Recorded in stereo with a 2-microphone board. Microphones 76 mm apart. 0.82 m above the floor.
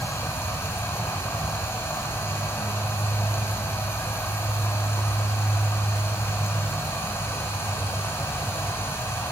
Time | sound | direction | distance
0.0 | running water | 30° left (ahead or behind) | 7 m